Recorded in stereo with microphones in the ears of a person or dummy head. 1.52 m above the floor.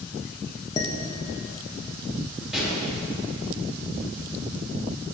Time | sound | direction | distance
0.8 | dishes clattering | 25° left (ahead or behind) | 0.8 m
2.5 | a pop | centre (ahead or behind) | 4 m